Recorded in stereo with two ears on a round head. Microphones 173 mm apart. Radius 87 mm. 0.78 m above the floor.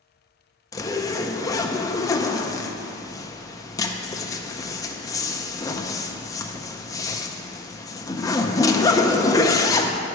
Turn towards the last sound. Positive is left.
turn(degrees=20)  # may be behind; listen again after turning